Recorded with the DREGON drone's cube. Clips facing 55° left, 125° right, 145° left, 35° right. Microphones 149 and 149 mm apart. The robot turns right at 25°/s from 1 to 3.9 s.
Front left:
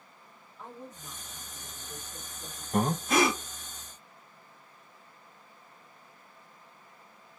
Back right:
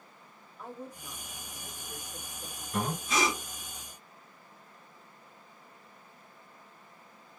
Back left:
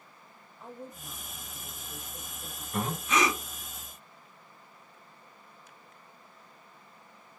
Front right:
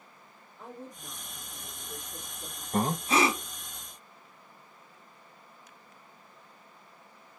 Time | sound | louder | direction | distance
0.6 | a woman speaking | back right 2 dB, even | 45° right | 2 m
2.7 | breathing | front left 6 dB, front right 3 dB | 10° left | 0.6 m